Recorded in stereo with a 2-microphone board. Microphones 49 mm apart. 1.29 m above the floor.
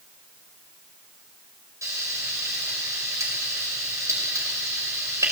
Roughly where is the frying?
Right.